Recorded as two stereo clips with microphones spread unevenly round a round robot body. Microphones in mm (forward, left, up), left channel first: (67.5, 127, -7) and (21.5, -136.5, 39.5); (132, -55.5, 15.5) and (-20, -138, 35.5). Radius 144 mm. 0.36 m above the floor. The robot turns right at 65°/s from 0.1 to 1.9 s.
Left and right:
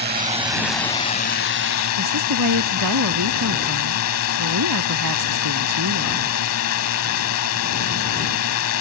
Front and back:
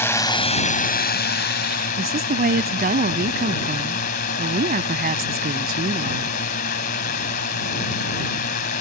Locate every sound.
0.0 s a drone: 45° right; by 8.8 s 70° left
2.0 s a woman speaking: 125° right